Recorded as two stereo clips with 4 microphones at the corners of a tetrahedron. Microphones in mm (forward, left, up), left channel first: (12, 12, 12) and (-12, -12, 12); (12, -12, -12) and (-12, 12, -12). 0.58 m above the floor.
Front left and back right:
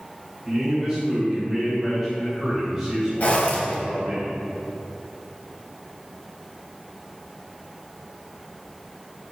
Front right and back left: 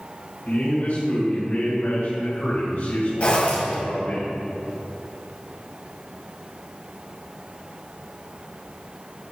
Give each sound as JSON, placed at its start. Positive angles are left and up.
{"t": 0.5, "sound": "a man speaking", "azimuth_deg": -65, "distance_m": 3.0}
{"t": 3.2, "sound": "a zipper", "azimuth_deg": 5, "distance_m": 2.0}